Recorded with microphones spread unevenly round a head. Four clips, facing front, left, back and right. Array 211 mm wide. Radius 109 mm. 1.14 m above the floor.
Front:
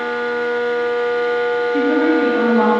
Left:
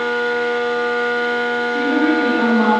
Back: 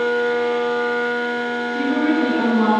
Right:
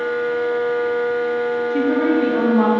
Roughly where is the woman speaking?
Ahead right.